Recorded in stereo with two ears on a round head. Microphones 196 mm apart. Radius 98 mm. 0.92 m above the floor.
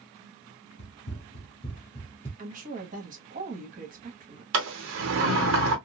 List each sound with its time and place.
0.8 s running footsteps: 35° left (ahead or behind), 2 m; by 2.3 s 5° left (ahead or behind), 1.5 m
2.4 s a woman speaking: 40° right (ahead or behind), 1.2 m
4.5 s a sliding door: 65° right (ahead or behind), 1.0 m